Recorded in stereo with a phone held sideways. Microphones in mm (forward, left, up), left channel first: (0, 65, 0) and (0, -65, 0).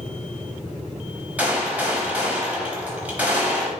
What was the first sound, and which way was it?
A gunshot, 10° right (ahead or behind).